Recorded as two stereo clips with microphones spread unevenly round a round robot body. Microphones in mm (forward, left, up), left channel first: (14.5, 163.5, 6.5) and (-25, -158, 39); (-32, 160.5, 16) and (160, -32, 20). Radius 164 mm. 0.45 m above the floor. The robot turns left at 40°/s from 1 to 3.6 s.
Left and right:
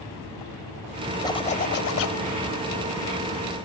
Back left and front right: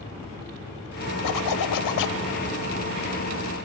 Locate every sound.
1.2 s a zipper: 160° left, 0.8 m; by 2.2 s 120° left, 0.8 m